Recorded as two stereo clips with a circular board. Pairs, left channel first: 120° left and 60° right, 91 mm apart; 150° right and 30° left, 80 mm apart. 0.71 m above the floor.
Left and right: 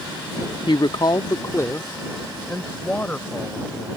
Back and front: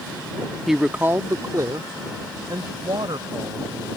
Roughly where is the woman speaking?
Behind left.